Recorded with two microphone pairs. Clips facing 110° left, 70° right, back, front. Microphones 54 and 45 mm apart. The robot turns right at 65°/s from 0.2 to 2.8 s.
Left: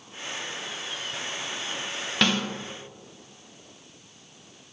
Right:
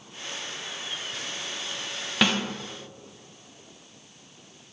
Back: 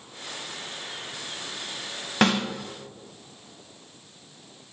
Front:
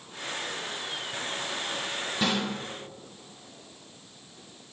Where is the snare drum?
150° right, 1.4 m; by 2.4 s 135° right, 1.4 m.